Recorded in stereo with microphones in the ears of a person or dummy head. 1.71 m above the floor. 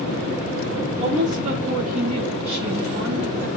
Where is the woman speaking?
35° right (ahead or behind), 3 m; by 3.5 s 65° right (ahead or behind), 2.5 m.